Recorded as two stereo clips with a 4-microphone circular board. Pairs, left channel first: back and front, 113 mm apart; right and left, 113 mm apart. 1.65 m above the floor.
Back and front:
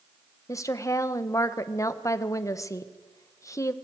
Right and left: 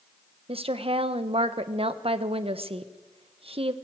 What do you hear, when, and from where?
0.5 s a woman speaking: 120° left, 1.2 m